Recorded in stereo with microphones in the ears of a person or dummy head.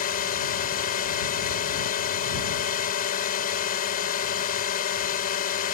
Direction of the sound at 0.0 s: 45° left (ahead or behind).